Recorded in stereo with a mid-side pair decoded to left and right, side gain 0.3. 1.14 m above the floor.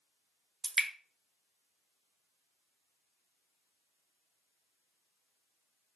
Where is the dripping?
55° right, 0.8 m.